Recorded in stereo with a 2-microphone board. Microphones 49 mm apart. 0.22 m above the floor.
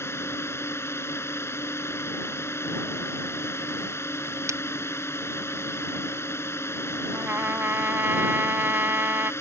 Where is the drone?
60° left (ahead or behind).